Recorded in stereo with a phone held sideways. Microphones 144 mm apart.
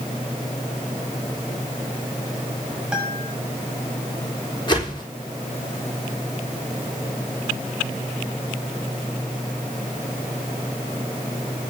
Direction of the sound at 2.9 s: 5° right (ahead or behind).